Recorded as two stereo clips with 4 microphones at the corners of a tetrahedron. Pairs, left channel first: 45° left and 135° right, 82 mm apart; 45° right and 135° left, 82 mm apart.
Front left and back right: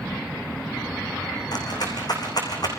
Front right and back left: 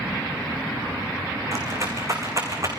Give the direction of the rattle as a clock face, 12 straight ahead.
9 o'clock.